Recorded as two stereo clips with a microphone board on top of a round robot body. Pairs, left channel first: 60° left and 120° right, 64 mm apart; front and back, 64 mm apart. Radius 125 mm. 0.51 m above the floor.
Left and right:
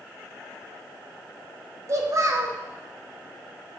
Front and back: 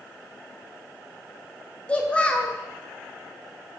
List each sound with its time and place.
1.9 s a child speaking: 75° right, 1.2 m